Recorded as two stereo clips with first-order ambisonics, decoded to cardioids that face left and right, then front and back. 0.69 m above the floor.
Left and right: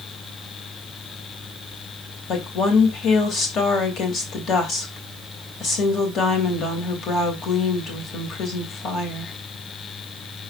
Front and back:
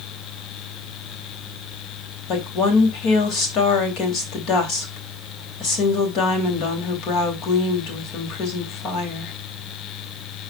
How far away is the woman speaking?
About 2.5 m.